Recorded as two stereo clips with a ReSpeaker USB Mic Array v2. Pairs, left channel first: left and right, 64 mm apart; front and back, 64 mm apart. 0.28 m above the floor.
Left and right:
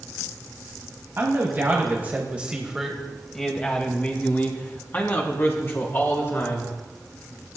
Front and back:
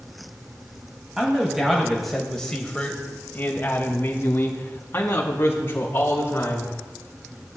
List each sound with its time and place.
1.2 s a man speaking: 105° right, 1.6 m; by 6.7 s 45° left, 3.5 m